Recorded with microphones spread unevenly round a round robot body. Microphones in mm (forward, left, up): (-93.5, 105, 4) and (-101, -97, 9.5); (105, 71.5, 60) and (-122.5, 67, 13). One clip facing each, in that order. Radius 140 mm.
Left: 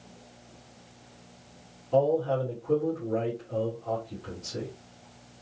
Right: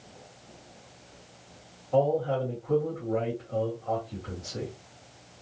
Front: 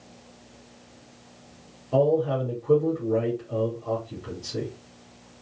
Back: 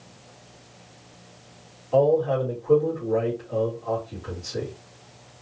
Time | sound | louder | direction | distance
1.9 | a man speaking | left 1 dB, back 2 dB | 45° left | 1.9 m